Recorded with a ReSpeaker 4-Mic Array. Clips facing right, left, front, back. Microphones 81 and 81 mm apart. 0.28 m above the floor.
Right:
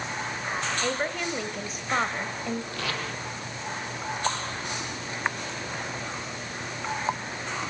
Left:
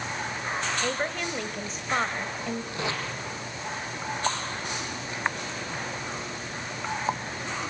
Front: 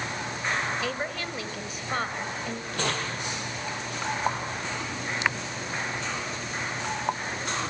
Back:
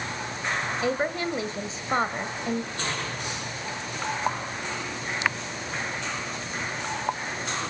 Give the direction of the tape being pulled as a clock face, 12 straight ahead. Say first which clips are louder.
Left 1 dB, front 2 dB; 11 o'clock.